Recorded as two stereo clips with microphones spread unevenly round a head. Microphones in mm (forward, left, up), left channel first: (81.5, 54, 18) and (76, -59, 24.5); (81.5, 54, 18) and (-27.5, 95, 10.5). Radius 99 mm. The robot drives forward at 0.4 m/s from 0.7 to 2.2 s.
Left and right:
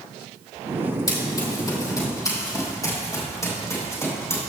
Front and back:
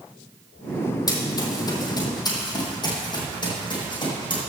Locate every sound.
1.1 s running footsteps: 30° left, 3.5 m; by 4.4 s 25° left, 5.5 m